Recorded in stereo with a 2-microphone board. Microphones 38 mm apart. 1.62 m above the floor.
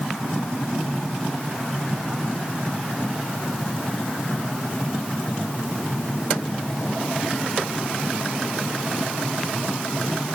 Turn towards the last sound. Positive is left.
No sound to turn to.